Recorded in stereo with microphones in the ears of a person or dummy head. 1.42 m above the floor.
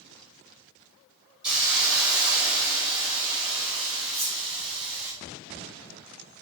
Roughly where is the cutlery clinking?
Left.